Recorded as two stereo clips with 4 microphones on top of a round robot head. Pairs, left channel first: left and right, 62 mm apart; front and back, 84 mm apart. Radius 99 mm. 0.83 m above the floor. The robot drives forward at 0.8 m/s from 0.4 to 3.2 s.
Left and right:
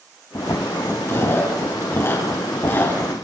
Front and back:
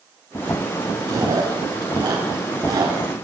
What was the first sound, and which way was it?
Chewing, 135° left.